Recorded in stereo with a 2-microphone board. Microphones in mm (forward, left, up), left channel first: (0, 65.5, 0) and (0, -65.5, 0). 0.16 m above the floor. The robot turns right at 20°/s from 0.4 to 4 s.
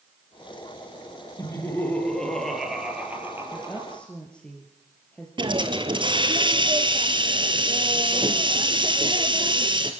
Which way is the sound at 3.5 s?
15° left (ahead or behind).